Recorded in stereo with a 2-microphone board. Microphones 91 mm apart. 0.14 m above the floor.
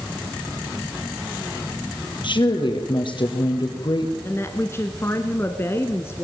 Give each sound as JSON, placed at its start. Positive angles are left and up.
{"t": 2.2, "sound": "a woman speaking", "side_deg": 60, "distance_m": 3.5}
{"t": 4.2, "sound": "a woman speaking", "side_deg": 30, "distance_m": 1.3}